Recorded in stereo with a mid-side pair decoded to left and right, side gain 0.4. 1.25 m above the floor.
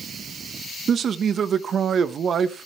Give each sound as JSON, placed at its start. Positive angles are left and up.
{"t": 0.9, "sound": "a man speaking", "azimuth_deg": -60, "distance_m": 1.1}